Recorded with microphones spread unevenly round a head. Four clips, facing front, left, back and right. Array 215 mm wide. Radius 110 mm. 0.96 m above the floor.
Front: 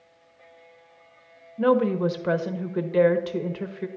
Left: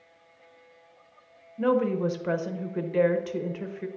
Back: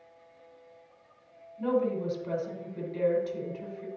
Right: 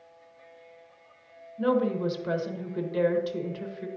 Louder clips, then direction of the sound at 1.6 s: Left 1 dB, front 7 dB; 15° left.